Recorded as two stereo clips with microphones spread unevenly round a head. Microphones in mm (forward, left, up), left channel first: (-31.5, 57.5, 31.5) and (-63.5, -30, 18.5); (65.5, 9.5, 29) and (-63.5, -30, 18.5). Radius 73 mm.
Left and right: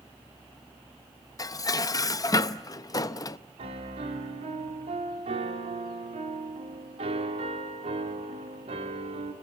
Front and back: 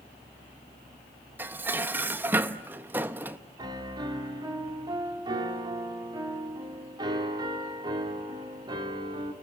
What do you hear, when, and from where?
1.4 s dishes clattering: 120° left, 0.7 m
3.6 s a piano: 105° right, 2.5 m